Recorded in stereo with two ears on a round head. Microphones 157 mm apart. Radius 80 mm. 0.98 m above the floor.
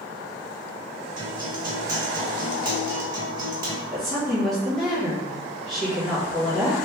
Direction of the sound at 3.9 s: 5° left (ahead or behind).